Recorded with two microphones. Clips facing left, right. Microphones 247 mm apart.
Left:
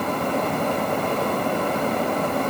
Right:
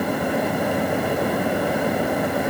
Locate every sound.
Only background noise.